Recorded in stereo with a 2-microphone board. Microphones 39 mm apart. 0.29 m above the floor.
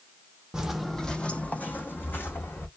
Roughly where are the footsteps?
Centre.